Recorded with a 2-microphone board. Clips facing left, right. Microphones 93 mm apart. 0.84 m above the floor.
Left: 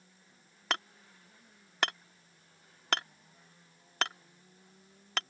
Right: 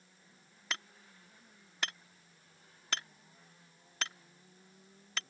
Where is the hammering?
65° left (ahead or behind).